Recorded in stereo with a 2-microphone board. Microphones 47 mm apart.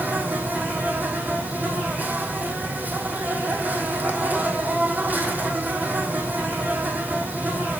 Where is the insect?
35° right (ahead or behind), 2.5 m.